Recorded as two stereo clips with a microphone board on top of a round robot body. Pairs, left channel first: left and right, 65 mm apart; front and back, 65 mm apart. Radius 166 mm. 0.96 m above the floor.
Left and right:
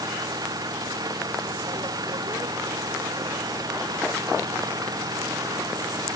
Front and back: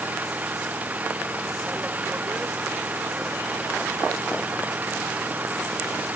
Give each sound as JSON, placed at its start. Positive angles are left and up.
{"t": 0.0, "sound": "an engine running", "azimuth_deg": -115}